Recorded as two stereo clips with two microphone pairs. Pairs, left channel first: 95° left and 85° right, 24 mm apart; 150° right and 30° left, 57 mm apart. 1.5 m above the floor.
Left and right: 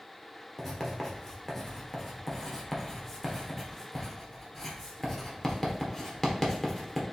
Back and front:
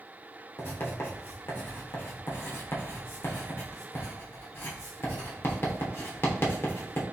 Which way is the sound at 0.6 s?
165° left.